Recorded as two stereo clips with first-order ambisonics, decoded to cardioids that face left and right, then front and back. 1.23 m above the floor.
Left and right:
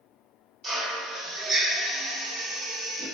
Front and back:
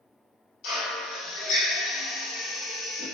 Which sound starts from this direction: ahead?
A drill, at 0.6 s.